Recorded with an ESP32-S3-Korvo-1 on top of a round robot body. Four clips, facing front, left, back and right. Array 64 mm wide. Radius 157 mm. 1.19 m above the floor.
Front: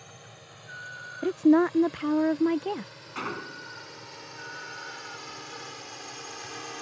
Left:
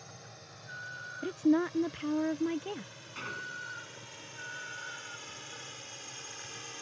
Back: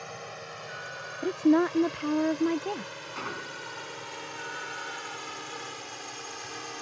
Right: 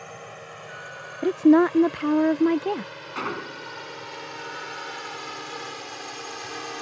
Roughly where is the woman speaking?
Right.